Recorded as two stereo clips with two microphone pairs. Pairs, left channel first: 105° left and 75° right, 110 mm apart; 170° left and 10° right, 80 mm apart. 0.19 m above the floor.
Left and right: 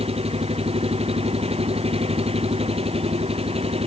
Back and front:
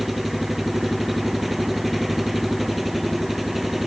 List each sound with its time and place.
0.0 s an engine running: 100° right